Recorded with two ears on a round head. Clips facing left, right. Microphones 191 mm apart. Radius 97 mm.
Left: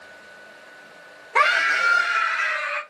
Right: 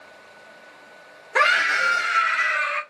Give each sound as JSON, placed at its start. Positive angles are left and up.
{"t": 1.4, "sound": "a scream", "side_deg": -15, "distance_m": 1.0}